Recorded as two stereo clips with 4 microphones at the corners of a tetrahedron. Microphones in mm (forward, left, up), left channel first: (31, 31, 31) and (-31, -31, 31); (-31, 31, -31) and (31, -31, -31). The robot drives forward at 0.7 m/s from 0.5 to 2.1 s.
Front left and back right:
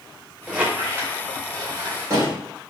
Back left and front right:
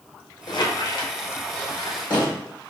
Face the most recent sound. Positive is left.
turn(degrees=170)